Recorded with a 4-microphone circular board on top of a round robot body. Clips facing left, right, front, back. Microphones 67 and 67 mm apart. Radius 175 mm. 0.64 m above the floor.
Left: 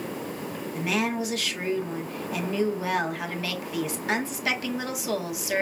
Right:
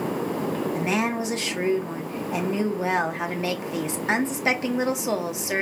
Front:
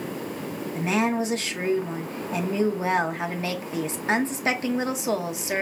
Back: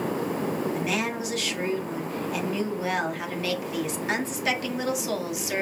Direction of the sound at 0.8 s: 40° right.